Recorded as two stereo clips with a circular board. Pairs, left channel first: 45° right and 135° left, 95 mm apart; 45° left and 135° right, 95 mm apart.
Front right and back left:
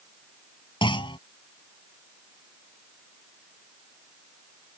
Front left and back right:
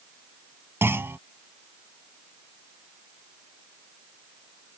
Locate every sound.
0.8 s a clunk: 70° right